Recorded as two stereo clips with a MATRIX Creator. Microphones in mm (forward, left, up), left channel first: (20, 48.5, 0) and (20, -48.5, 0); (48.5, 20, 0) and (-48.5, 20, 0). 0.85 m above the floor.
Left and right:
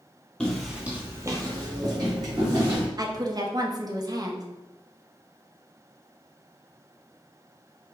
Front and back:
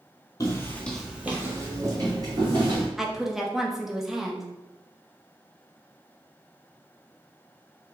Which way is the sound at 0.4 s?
15° left.